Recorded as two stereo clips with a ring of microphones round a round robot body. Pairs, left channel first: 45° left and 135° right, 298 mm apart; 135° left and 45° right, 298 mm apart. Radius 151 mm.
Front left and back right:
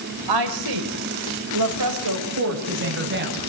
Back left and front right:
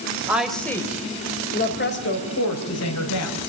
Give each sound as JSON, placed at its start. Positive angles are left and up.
{"t": 0.3, "sound": "a woman speaking", "azimuth_deg": -130, "distance_m": 3.0}